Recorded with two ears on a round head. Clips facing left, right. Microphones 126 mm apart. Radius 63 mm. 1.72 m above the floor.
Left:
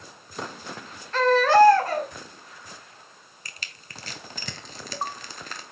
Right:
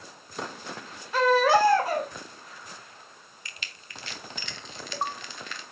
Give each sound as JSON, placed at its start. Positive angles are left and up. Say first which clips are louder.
{"t": 1.1, "sound": "a baby crying", "louder": "left 3 dB", "side_deg": -10, "distance_m": 2.5}
{"t": 3.5, "sound": "crushing", "louder": "left 1 dB", "side_deg": 35, "distance_m": 1.2}